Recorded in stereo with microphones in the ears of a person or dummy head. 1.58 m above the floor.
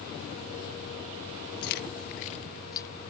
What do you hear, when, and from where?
1.6 s keys jangling: 45° left (ahead or behind); by 2.9 s 15° left (ahead or behind)